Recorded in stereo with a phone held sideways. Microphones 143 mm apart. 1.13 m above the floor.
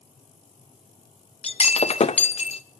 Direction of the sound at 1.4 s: 45° left (ahead or behind).